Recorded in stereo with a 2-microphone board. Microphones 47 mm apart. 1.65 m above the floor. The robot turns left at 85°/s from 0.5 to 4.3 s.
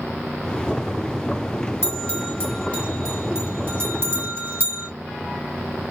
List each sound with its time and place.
1.8 s a bell: 55° left (ahead or behind), 1.6 m; by 4.9 s 65° right (ahead or behind), 1.6 m